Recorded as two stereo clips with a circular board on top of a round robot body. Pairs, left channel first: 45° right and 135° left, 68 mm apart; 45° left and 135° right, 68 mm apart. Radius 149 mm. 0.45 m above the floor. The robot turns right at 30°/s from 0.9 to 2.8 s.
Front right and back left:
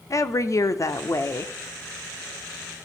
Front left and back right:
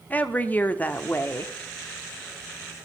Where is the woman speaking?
15° right, 1.3 m; by 1.5 s straight ahead, 1.3 m.